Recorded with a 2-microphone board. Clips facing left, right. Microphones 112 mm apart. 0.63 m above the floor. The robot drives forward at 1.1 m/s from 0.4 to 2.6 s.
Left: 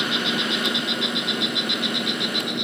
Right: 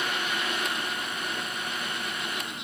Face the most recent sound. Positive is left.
turn(degrees=65)  # may be behind; listen again after turning